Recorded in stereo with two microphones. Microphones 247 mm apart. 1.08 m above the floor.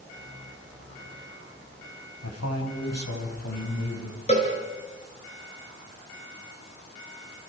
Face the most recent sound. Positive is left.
turn(degrees=30)  # may be behind; listen again after turning